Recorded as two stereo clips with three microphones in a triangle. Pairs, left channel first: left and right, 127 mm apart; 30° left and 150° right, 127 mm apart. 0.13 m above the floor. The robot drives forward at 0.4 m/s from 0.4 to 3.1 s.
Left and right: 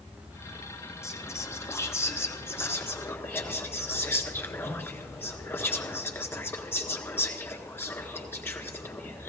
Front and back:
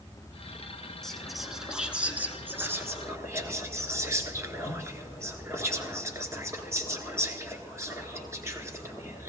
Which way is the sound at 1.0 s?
110° left.